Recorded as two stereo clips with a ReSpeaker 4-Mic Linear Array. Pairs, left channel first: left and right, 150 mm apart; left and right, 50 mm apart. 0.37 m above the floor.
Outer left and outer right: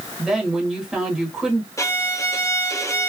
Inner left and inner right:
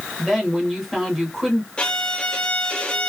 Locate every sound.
0.2 s a woman speaking: 5° right (ahead or behind), 1.5 m
1.8 s a violin: 20° left (ahead or behind), 0.7 m